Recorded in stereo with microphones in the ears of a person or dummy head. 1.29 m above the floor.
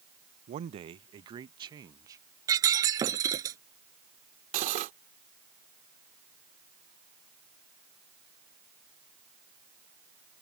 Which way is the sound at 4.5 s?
40° right (ahead or behind).